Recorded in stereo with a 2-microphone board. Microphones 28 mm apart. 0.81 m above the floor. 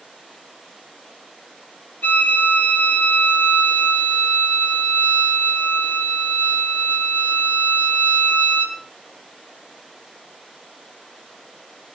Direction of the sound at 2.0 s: 85° left.